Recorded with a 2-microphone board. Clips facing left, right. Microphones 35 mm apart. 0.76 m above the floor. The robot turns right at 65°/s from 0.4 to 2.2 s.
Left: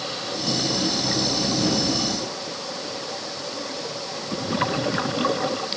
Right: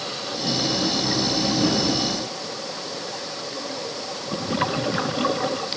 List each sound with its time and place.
Only background noise.